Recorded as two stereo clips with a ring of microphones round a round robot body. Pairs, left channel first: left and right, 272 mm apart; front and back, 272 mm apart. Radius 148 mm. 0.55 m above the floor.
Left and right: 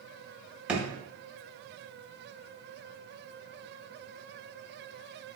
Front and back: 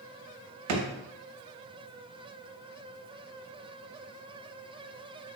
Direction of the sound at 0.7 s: 175° right.